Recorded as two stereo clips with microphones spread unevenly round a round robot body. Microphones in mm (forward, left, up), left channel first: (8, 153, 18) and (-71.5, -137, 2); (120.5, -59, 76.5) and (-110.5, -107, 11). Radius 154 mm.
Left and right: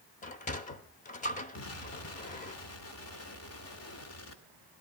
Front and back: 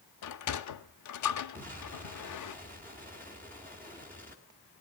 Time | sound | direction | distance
0.2 | a sliding door | 5° left | 0.8 m
1.6 | an explosion | 105° left | 2 m